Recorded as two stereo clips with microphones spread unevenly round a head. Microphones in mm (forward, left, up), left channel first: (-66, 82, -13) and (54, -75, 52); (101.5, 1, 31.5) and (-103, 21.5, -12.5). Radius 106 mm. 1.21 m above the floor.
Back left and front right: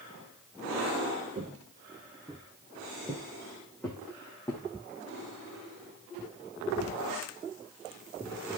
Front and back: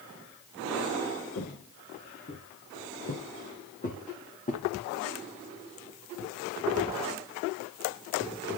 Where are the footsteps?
10° right, 2 m; by 4.6 s 40° left, 4 m.